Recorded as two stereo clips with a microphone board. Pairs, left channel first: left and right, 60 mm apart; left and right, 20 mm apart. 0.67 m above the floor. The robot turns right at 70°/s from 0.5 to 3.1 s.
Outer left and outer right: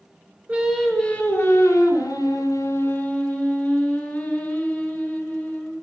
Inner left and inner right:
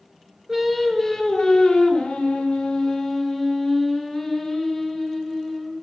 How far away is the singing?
About 3.5 m.